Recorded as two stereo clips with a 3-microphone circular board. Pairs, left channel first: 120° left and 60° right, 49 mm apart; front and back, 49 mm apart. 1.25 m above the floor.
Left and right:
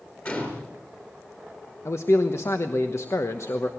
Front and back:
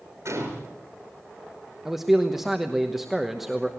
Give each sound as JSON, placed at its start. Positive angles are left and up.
{"t": 0.2, "sound": "a gunshot", "azimuth_deg": 175, "distance_m": 4.0}
{"t": 1.9, "sound": "a man speaking", "azimuth_deg": 95, "distance_m": 1.1}